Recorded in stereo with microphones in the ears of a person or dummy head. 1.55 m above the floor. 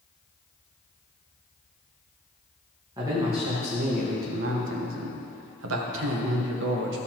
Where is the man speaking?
20° right (ahead or behind), 1.4 m; by 7.0 s 65° right (ahead or behind), 1.5 m.